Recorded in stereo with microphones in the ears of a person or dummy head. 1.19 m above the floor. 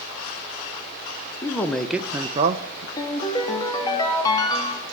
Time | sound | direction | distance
1.4 | a man speaking | 20° left (ahead or behind) | 0.8 m
3.0 | a ringtone | 25° left (ahead or behind) | 1.1 m